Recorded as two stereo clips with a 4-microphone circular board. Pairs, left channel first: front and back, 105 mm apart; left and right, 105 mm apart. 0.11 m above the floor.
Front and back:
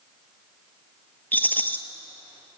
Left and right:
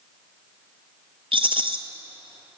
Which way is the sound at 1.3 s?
70° right.